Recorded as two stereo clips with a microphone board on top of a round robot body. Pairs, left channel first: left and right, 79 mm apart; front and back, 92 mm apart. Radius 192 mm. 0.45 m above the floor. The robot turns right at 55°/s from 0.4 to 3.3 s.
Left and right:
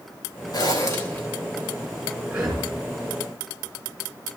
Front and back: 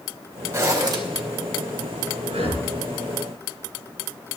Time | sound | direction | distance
0.5 | a zipper | 120° left | 3 m
2.3 | breathing | 165° right | 3 m